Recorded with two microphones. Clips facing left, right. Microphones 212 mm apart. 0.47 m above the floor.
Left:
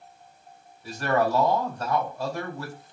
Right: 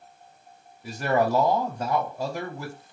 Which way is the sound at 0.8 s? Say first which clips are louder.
Right 1 dB; 20° right (ahead or behind).